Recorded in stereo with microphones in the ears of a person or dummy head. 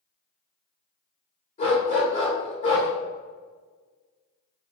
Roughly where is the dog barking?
Left.